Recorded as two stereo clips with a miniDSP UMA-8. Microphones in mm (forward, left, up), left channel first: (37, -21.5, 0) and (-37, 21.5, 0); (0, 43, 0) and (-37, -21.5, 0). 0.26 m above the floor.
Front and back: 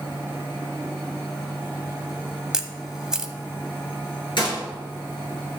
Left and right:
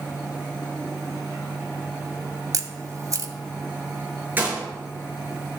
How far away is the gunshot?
About 4.5 m.